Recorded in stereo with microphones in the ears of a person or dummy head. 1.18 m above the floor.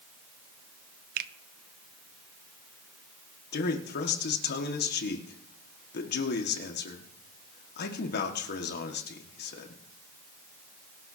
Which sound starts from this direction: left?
A man speaking, at 3.5 s.